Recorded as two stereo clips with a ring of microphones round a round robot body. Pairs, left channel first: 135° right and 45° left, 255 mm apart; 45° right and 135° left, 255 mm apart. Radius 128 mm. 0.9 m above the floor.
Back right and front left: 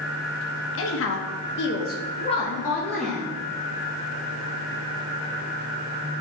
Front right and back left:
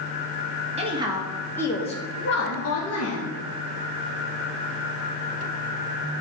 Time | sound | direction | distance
0.8 | a woman speaking | 160° right | 1.5 m